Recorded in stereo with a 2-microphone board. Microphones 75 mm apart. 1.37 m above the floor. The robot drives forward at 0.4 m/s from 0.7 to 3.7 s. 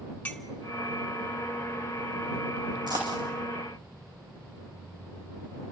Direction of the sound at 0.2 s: 15° left (ahead or behind).